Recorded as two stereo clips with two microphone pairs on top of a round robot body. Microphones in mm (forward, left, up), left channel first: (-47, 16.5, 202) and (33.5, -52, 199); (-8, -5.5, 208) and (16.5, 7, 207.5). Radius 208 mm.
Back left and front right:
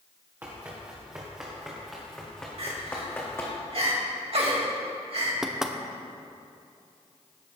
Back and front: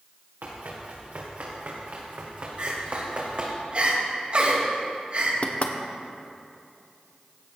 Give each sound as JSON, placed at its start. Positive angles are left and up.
{"t": 0.4, "sound": "running footsteps", "azimuth_deg": 30, "distance_m": 3.5}
{"t": 2.6, "sound": "crying", "azimuth_deg": -20, "distance_m": 3.0}
{"t": 5.4, "sound": "knocking", "azimuth_deg": -125, "distance_m": 1.3}